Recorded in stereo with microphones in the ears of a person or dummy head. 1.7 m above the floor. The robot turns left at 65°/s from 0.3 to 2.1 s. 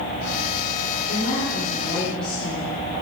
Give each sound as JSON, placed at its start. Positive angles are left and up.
{"t": 1.1, "sound": "a woman speaking", "azimuth_deg": 70, "distance_m": 6.0}